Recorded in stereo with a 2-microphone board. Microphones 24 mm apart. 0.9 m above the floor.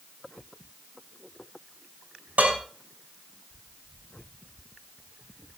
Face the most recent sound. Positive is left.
turn(degrees=-85)